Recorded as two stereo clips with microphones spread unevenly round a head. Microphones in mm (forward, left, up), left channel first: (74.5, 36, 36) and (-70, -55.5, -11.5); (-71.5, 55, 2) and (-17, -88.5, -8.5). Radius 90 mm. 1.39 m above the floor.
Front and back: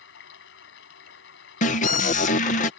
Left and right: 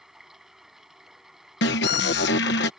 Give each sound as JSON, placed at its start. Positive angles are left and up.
{"t": 0.0, "sound": "running water", "azimuth_deg": 20}
{"t": 1.6, "sound": "an alarm", "azimuth_deg": 85}